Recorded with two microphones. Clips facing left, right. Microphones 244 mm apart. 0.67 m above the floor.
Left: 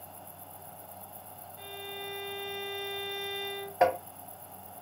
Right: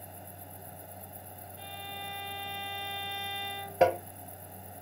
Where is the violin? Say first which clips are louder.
Left 7 dB; 50° left (ahead or behind), 1.7 m.